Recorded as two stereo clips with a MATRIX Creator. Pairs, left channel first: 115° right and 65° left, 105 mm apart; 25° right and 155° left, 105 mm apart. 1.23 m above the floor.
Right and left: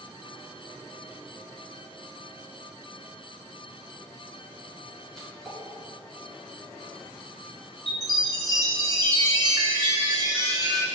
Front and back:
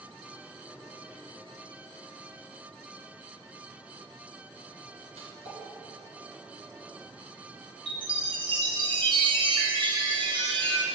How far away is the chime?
About 2.0 m.